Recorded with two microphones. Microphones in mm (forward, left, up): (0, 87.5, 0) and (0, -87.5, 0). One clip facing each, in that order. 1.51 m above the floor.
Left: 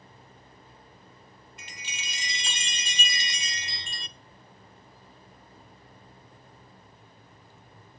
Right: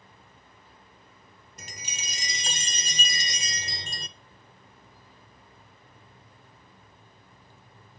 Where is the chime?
45° right (ahead or behind), 0.6 m.